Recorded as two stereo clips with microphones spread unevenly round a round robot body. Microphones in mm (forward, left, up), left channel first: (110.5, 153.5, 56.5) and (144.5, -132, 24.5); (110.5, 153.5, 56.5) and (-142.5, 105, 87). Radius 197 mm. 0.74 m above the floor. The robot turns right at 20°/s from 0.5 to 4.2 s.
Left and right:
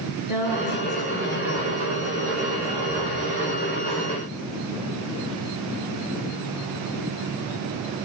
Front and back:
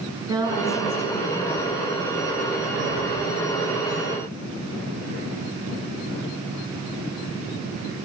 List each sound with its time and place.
0.3 s a woman speaking: 115° left, 6.5 m; by 1.7 s 140° left, 6.5 m